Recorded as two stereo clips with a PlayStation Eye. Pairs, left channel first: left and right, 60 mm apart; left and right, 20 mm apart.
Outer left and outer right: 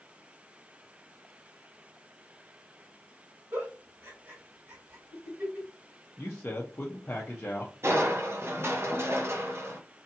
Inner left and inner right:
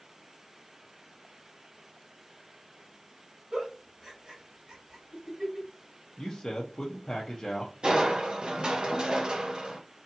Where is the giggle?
40° right (ahead or behind), 1.5 m.